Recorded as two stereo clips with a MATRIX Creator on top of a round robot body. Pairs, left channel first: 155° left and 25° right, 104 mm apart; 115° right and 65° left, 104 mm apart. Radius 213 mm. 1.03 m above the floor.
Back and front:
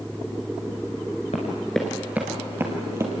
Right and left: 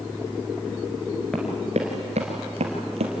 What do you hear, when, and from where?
1.3 s running footsteps: 165° left, 1.0 m; by 3.1 s 45° left, 2.5 m